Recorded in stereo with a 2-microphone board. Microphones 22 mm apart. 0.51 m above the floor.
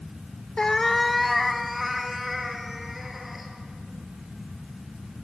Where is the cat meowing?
40° left (ahead or behind), 0.5 m; by 3.5 s 10° right (ahead or behind), 4.5 m.